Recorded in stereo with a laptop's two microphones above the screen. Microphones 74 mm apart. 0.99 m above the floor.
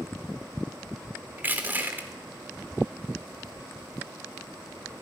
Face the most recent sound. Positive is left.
turn(degrees=-25)  # may be behind; listen again after turning